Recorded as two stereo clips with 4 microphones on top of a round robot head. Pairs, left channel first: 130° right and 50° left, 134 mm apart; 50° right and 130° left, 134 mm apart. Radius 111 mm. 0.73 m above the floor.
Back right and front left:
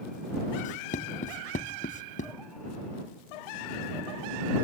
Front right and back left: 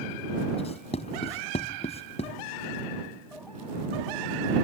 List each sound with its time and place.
0.6 s writing: 100° right